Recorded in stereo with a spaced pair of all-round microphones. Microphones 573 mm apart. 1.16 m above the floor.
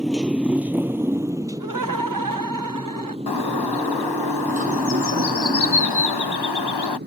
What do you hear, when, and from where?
0.0 s a motorcycle: centre (ahead or behind); by 7.1 s 15° right (ahead or behind)
1.6 s laughter: 35° right (ahead or behind)
3.3 s a bird: 45° left (ahead or behind)